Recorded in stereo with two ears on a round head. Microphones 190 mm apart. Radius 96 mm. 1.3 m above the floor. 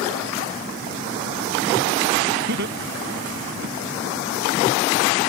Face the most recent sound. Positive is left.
turn(degrees=-50)  # may be behind; listen again after turning